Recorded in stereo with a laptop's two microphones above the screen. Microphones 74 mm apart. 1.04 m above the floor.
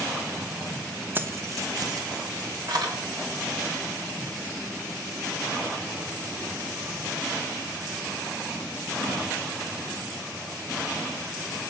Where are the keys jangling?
30° right (ahead or behind), 0.5 m; by 3.0 s 65° right (ahead or behind), 1.9 m.